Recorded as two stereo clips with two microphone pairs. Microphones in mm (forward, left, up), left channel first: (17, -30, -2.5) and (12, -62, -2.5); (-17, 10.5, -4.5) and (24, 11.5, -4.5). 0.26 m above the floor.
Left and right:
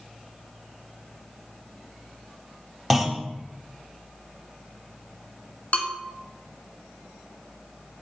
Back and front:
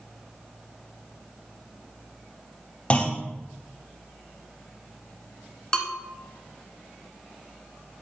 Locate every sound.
2.9 s a clunk: straight behind, 0.7 m
5.7 s a bell: 110° left, 1.3 m